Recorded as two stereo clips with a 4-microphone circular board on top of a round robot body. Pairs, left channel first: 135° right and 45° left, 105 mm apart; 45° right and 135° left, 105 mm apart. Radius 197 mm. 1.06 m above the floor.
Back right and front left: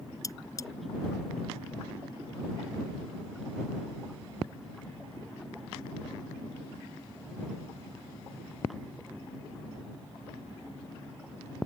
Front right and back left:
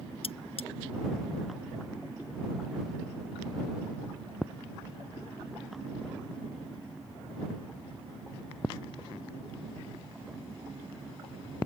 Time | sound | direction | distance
0.2 | cutlery clinking | 75° right | ?